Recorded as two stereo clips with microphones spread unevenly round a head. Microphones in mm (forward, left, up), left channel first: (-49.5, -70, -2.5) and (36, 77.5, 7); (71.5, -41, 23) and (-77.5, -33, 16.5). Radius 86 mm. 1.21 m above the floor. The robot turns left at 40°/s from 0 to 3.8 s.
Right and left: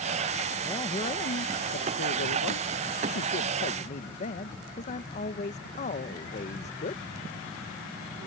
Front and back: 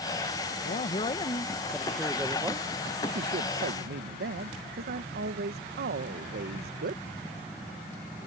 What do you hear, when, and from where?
0.6 s a man speaking: 45° right; by 7.0 s 170° right